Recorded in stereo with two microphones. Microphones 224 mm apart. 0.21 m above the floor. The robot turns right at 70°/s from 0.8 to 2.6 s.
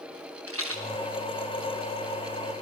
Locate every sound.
0.5 s a rattle: 85° right, 7.5 m